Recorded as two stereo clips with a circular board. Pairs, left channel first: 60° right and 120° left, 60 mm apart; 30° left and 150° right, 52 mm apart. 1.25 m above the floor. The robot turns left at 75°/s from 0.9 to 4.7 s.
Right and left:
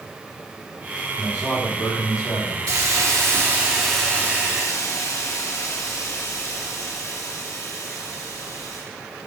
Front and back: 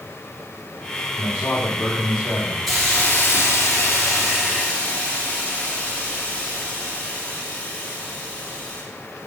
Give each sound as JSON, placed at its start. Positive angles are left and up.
{"t": 1.2, "sound": "a man speaking", "azimuth_deg": 15, "distance_m": 3.0}
{"t": 2.7, "sound": "a hiss", "azimuth_deg": 125, "distance_m": 3.0}